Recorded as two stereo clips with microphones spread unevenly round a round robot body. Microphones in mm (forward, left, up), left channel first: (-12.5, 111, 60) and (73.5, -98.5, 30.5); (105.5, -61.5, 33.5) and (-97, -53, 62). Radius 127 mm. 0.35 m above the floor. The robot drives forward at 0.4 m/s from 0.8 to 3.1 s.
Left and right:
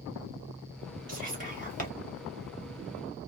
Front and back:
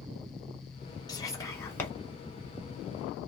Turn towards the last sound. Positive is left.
turn(degrees=-95)